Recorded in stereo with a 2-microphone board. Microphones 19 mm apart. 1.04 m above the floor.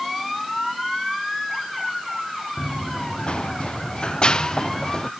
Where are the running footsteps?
75° left (ahead or behind); by 5.1 s 40° left (ahead or behind).